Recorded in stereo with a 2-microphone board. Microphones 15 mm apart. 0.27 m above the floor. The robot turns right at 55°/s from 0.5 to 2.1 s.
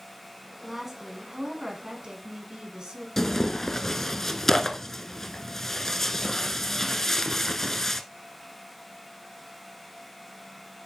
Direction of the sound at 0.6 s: 170° right.